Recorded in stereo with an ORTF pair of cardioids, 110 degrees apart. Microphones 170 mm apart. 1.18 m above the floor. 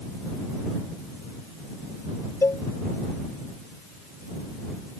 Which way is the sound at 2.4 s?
15° left.